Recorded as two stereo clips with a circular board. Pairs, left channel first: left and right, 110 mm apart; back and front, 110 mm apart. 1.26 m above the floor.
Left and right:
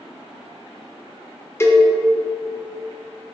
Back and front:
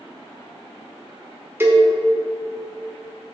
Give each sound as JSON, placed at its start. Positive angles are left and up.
{"t": 1.6, "sound": "a cowbell", "azimuth_deg": 50, "distance_m": 1.0}